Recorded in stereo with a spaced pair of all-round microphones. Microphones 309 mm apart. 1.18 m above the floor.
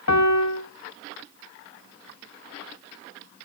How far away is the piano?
About 0.9 m.